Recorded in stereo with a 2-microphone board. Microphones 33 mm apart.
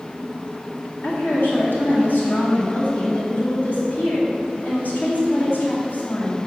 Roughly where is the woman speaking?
Left.